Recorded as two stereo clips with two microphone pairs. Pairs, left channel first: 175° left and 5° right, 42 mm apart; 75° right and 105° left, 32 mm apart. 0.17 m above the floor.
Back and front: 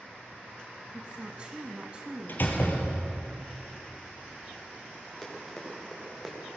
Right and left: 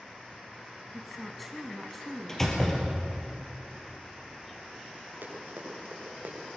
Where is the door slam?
150° right, 3 m.